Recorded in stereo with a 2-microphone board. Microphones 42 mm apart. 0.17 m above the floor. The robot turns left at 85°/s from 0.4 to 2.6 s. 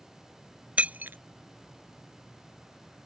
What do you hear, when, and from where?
0.8 s breaking glass: 30° right (ahead or behind); by 1.2 s 60° right (ahead or behind)